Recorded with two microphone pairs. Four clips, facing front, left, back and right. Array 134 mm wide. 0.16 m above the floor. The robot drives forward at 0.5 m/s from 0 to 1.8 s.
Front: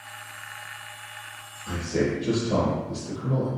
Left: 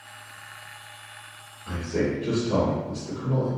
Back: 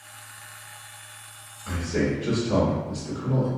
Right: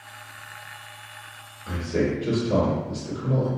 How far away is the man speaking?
About 1.8 m.